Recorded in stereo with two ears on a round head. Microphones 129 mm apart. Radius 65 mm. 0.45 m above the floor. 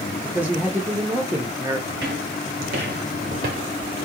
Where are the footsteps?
80° right, 2 m; by 4.1 s 35° right (ahead or behind), 0.8 m.